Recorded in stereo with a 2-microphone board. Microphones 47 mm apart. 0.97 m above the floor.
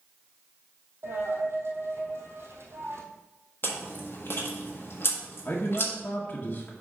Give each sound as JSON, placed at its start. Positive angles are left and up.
{"t": 1.0, "sound": "a dropped coin", "side_deg": -60, "distance_m": 1.9}
{"t": 3.6, "sound": "chewing", "side_deg": 55, "distance_m": 1.5}
{"t": 5.5, "sound": "a man speaking", "side_deg": 45, "distance_m": 1.1}